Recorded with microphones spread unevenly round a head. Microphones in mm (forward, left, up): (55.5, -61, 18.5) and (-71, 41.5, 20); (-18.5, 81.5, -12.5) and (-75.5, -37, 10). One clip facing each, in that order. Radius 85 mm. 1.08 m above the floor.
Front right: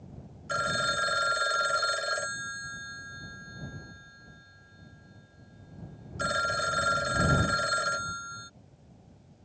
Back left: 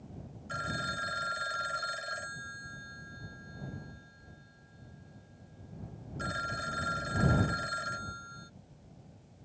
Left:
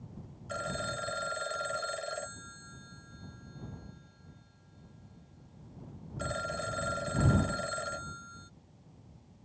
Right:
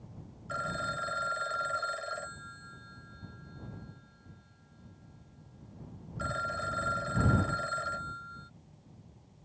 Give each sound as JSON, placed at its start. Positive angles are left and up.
{"t": 0.5, "sound": "a phone ringing", "azimuth_deg": -10}